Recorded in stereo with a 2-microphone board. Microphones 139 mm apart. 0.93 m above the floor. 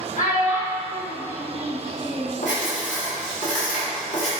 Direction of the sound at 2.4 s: 65° left (ahead or behind).